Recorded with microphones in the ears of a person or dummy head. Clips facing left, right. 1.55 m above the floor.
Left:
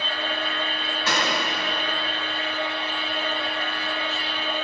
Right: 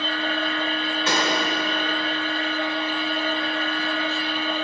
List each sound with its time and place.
0.0 s a machine running: 35° right (ahead or behind), 2 m
1.1 s a gunshot: 15° right (ahead or behind), 1.8 m